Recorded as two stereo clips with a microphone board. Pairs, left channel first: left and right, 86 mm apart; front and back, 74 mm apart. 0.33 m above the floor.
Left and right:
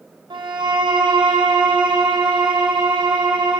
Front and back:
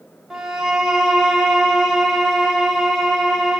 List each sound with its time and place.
0.3 s a violin: 95° right, 6 m